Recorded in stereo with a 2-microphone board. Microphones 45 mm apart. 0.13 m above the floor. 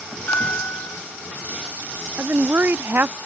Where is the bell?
55° left (ahead or behind).